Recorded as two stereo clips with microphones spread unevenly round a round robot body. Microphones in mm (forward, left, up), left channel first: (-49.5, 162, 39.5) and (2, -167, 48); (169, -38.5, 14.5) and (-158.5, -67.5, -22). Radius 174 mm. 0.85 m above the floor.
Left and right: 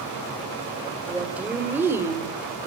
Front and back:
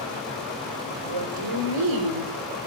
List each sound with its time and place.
1.0 s a woman speaking: 170° right, 4 m; by 2.7 s 160° right, 2.5 m